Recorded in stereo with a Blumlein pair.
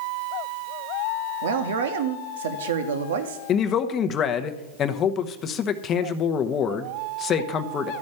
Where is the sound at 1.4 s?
60° right, 1.2 m.